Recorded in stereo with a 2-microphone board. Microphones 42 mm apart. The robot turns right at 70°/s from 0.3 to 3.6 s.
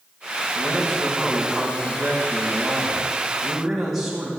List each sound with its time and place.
0.6 s a man speaking: 140° left, 3 m; by 4.3 s 10° right, 3 m